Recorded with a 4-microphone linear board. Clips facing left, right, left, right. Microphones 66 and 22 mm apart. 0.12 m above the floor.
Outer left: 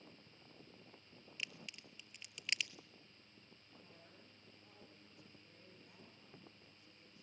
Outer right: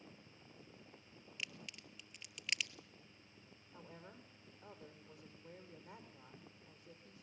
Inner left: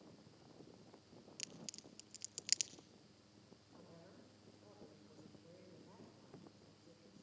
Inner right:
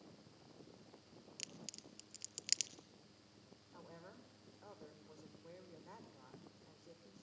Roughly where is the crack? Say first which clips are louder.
Even, even; centre.